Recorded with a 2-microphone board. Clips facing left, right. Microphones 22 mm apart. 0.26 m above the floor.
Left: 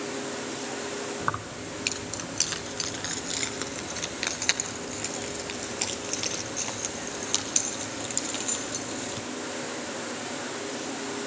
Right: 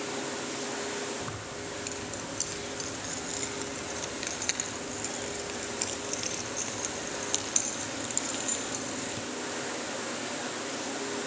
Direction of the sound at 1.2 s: 55° left (ahead or behind).